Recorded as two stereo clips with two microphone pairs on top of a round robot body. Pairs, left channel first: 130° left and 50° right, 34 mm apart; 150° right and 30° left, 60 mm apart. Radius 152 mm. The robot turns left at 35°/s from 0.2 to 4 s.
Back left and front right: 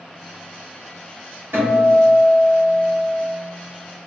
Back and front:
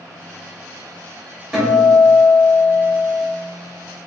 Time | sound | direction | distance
1.5 | a guitar | 60° right | 1.4 m